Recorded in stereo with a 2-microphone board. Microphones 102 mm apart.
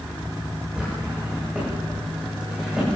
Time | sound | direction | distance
0.8 | a drawer | 10° right (ahead or behind) | 9 m